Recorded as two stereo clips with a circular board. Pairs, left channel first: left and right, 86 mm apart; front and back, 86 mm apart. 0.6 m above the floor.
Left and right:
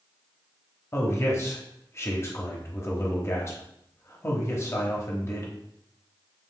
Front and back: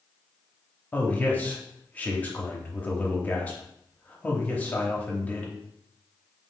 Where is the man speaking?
60° left, 0.9 m.